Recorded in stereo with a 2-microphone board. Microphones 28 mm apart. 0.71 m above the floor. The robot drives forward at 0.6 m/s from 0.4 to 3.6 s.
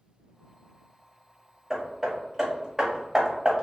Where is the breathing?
I don't hear breathing.